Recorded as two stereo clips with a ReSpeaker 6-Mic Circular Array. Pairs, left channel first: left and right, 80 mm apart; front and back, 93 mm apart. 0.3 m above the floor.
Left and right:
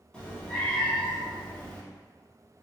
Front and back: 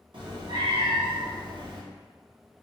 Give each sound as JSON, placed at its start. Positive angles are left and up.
{"t": 0.1, "sound": "a cat meowing", "azimuth_deg": 165, "distance_m": 1.3}